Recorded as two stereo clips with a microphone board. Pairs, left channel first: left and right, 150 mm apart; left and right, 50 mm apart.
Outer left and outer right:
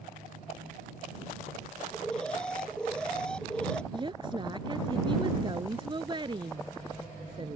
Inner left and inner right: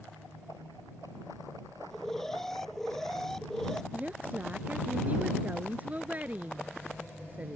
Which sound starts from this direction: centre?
An alarm, at 1.9 s.